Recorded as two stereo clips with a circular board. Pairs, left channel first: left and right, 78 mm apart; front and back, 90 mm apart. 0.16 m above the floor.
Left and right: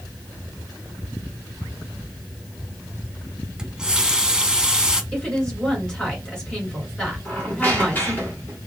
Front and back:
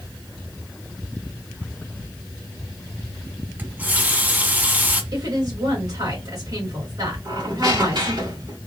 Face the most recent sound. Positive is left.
turn(degrees=155)